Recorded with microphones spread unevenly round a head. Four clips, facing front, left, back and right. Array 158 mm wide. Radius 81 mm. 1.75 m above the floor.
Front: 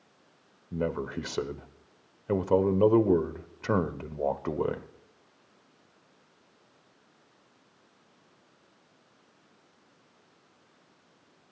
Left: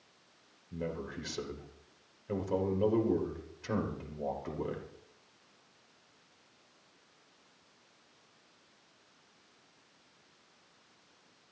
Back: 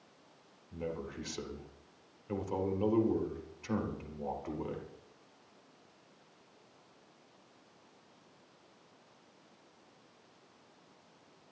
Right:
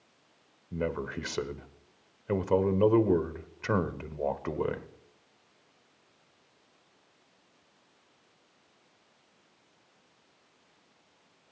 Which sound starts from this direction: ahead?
A man speaking, at 0.7 s.